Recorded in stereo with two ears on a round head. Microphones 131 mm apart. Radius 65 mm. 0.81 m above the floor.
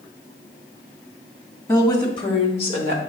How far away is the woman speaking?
About 1.6 m.